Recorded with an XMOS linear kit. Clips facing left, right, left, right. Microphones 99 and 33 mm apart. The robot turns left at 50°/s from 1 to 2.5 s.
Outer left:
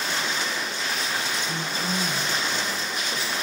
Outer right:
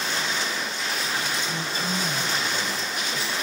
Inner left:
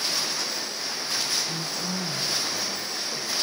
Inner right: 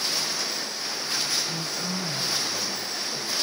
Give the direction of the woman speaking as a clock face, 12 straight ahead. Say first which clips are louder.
Even, even; 10 o'clock.